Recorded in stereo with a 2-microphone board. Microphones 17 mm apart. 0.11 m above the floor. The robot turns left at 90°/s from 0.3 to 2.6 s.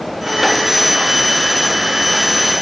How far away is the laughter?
No laughter in this recording.